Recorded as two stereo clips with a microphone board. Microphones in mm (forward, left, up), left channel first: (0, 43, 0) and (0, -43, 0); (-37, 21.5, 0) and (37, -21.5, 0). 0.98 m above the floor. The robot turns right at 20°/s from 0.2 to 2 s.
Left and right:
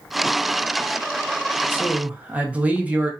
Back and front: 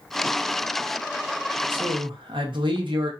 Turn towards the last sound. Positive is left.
turn(degrees=-15)